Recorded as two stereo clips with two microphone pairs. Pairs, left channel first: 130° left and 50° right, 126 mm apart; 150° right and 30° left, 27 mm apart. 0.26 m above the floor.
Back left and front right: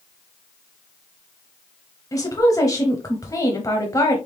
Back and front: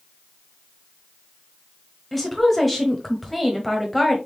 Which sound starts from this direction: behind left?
A woman speaking, at 2.1 s.